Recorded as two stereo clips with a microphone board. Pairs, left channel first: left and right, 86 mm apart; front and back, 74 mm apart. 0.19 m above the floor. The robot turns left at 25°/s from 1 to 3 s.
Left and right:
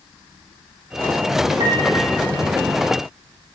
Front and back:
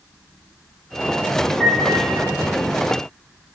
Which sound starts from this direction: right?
A piano, at 1.6 s.